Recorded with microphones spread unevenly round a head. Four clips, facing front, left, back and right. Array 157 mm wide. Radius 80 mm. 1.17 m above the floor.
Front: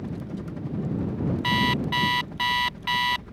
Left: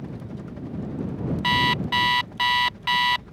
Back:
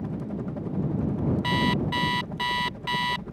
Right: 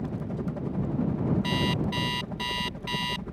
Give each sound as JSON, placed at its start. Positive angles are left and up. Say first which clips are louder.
{"t": 0.0, "sound": "a helicopter", "louder": "right 4 dB, back 2 dB", "azimuth_deg": -135}
{"t": 1.4, "sound": "an alarm clock", "louder": "left 5 dB, front 1 dB", "azimuth_deg": 75}